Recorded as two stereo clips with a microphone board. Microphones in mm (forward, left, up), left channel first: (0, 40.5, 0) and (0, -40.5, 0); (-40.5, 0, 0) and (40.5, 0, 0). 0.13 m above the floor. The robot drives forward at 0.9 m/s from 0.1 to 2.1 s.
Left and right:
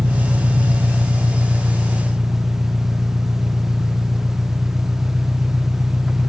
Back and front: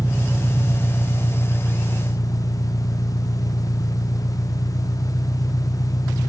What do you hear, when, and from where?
0.0 s an engine running: 60° right, 1.0 m; by 6.3 s 160° right, 1.8 m